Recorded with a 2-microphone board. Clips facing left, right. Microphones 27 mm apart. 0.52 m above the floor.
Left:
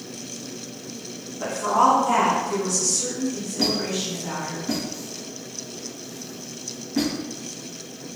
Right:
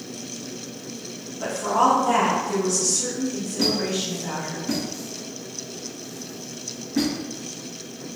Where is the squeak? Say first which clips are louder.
Right 1 dB; 5° left (ahead or behind), 1.8 m.